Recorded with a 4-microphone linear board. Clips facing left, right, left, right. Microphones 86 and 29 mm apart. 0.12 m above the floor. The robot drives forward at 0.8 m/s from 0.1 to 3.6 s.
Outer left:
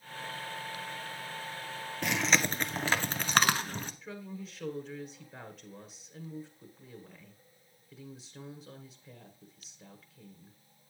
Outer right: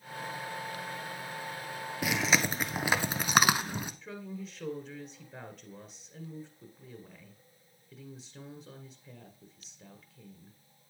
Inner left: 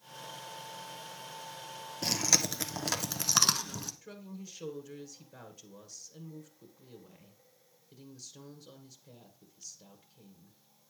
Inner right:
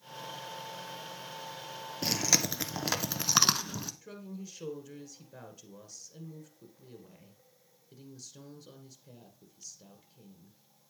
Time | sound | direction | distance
2.0 | chewing | 5° right (ahead or behind) | 1.2 m
4.0 | a woman speaking | centre (ahead or behind) | 1.2 m